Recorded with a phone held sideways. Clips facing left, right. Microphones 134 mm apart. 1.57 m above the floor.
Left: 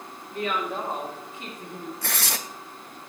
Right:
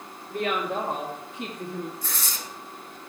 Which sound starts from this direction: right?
A woman speaking, at 0.3 s.